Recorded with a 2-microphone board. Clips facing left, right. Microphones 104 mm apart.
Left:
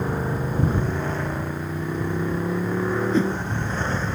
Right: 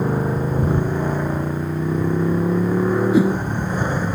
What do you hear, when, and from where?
0.0 s a motorcycle: 15° right (ahead or behind)
3.1 s a whoosh: 10° right (ahead or behind)